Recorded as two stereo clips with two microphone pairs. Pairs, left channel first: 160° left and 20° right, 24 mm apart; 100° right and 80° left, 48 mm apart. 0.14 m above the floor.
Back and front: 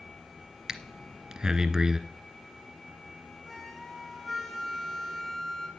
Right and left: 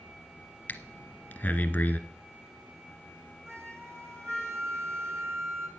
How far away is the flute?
About 1.7 m.